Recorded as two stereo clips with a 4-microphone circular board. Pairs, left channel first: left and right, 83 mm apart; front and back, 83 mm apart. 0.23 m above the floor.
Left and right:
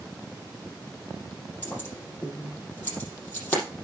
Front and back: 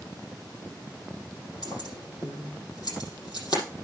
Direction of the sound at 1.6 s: 25° left.